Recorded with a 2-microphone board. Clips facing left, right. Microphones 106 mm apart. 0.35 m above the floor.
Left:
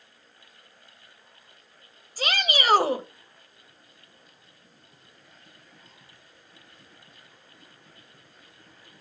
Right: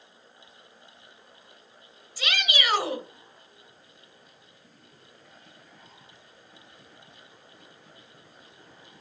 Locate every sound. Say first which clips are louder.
2.2 s a shout: left 3 dB; 45° left (ahead or behind), 1.5 m